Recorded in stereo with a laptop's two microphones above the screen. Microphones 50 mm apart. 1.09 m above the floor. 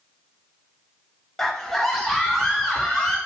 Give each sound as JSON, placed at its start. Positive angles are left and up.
{"t": 1.4, "sound": "a scream", "side_deg": 5, "distance_m": 0.9}